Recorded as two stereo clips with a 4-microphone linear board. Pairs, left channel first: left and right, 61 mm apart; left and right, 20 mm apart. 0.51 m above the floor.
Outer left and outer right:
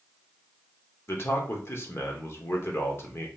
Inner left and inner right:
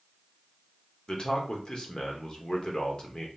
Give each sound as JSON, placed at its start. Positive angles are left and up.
{"t": 1.1, "sound": "a man speaking", "side_deg": 45, "distance_m": 1.0}